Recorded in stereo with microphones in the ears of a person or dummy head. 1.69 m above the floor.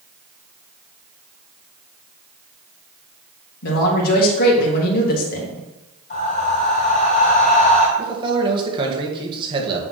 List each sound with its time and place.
3.6 s a man speaking: 50° left (ahead or behind), 2.5 m
6.1 s breathing: 40° left (ahead or behind), 3 m
8.0 s a man speaking: 25° right (ahead or behind), 1.9 m